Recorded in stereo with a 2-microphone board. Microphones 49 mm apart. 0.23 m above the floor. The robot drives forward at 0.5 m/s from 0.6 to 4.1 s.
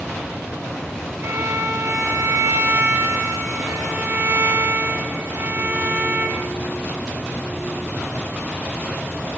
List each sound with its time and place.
1.2 s a violin: 60° right (ahead or behind), 2 m; by 6.4 s 45° right (ahead or behind), 2.5 m